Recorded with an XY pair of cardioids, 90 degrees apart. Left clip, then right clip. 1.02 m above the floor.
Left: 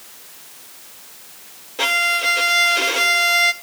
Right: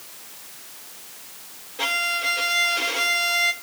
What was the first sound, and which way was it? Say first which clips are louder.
A violin: left 6 dB; 65° left.